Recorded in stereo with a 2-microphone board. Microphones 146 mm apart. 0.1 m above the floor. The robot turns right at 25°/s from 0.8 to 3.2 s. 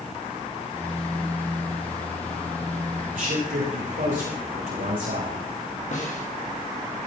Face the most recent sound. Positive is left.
turn(degrees=55)  # may be behind; listen again after turning